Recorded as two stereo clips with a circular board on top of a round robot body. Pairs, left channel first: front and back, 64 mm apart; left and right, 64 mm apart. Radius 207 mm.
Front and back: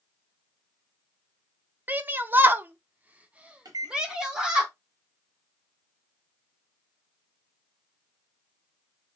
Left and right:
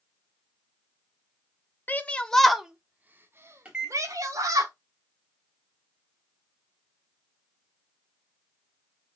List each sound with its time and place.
1.9 s a shout: 135° left, 0.9 m; by 4.7 s 100° right, 1.3 m
3.6 s a microwave: 160° right, 1.3 m